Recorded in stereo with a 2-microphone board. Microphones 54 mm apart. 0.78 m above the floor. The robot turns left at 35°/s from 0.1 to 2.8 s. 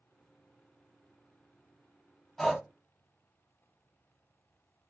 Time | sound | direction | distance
2.4 | breathing | 10° left (ahead or behind) | 0.6 m